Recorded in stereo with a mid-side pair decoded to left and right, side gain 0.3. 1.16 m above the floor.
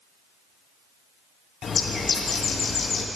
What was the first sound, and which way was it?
A bird, 65° left.